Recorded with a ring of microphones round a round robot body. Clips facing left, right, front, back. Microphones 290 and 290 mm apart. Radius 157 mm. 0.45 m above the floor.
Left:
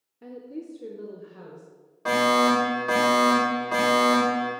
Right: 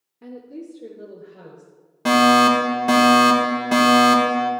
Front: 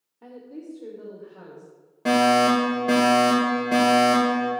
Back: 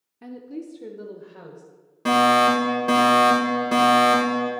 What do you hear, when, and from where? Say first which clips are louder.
0.2 s a woman speaking: right 1 dB, back 4 dB; 165° right, 0.9 m; by 1.6 s 155° left, 1.8 m
2.0 s a fire alarm: right 6 dB, front 1 dB; 110° right, 3 m